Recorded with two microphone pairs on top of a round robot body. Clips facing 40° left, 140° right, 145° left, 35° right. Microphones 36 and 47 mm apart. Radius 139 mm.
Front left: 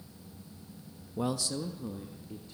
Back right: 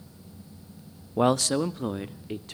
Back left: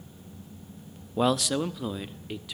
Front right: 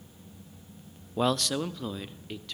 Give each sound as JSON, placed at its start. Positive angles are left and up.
{"t": 1.2, "sound": "a man speaking", "azimuth_deg": -140, "distance_m": 0.8}